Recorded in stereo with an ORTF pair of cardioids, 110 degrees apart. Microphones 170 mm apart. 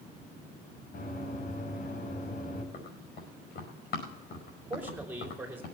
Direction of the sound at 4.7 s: 10° right.